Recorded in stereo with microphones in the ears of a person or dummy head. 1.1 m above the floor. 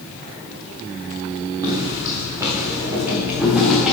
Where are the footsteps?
15° right (ahead or behind), 4 m; by 3.9 s 5° left (ahead or behind), 4.5 m.